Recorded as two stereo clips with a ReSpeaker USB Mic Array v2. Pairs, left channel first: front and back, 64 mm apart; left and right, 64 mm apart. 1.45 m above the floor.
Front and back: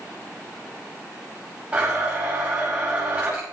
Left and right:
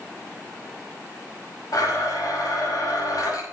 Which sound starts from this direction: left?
A blender, at 1.7 s.